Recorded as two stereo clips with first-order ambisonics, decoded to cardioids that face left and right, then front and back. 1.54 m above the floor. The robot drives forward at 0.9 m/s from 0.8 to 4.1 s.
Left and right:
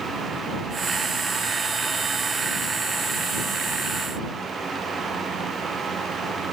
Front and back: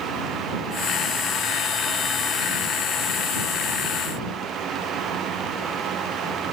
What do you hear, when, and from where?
Only background noise.